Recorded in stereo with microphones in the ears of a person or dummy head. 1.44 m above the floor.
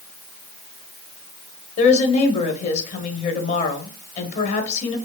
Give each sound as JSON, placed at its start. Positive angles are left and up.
{"t": 1.8, "sound": "a woman speaking", "side_deg": 40, "distance_m": 0.9}